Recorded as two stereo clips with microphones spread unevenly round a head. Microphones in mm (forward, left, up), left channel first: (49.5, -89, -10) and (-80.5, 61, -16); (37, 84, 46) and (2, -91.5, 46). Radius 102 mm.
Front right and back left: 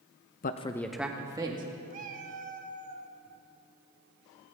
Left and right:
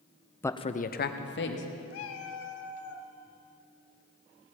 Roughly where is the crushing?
I don't hear crushing.